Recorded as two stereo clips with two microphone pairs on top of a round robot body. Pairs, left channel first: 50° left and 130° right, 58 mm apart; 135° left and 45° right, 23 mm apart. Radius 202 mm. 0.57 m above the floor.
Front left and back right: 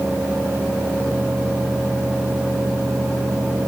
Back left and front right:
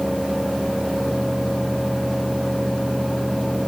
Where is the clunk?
I don't hear a clunk.